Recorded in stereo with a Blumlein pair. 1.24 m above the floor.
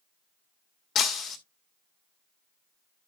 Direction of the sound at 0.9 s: 30° left.